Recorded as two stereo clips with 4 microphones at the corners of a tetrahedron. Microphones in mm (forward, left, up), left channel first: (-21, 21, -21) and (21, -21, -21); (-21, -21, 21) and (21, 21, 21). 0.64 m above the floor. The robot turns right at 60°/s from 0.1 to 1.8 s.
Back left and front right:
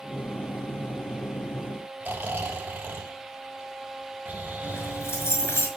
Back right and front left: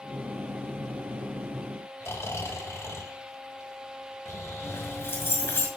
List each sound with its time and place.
2.0 s snoring: 100° right, 3 m
4.6 s keys jangling: 175° left, 6 m